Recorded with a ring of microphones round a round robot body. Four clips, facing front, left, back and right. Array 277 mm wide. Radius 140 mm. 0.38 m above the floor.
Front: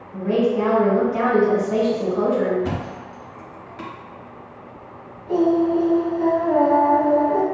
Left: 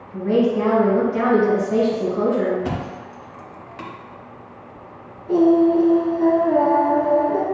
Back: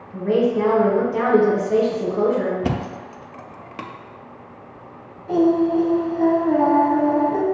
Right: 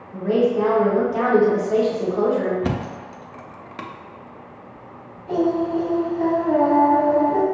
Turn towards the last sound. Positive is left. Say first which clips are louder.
# left 6 dB, back 1 dB
turn(degrees=-135)